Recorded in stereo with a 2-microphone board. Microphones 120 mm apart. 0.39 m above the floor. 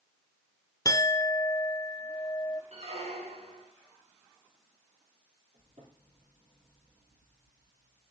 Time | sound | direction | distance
0.8 | a clink | 30° left (ahead or behind) | 0.5 m
2.7 | a squeak | 70° right (ahead or behind) | 3 m
5.5 | a cupboard door | 70° right (ahead or behind) | 7 m